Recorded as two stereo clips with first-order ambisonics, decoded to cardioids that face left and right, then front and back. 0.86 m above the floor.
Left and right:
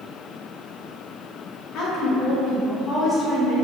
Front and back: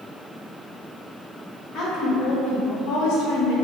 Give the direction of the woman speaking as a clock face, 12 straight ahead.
11 o'clock.